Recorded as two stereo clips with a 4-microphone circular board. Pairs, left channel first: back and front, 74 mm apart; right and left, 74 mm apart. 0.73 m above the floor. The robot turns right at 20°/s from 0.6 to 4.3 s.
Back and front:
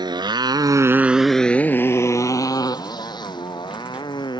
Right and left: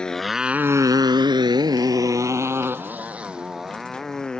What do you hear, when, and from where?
0.0 s a motorcycle: 10° right; by 4.4 s 170° right